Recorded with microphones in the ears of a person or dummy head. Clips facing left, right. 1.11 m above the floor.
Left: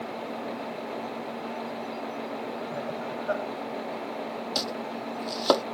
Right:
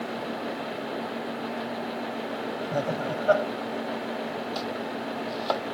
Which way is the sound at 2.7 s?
70° right (ahead or behind).